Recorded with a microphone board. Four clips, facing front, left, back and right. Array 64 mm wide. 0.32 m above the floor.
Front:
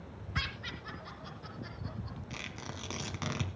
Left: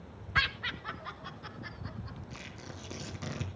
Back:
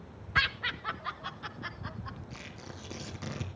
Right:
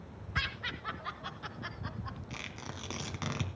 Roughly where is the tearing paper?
Ahead right.